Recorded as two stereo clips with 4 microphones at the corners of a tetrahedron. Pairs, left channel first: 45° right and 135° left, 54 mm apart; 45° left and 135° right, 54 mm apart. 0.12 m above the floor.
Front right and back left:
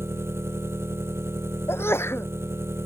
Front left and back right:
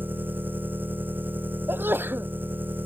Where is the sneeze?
85° right.